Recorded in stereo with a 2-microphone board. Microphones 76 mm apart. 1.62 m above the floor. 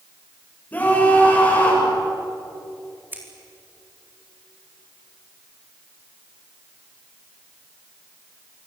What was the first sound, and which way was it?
A scream, 20° left (ahead or behind).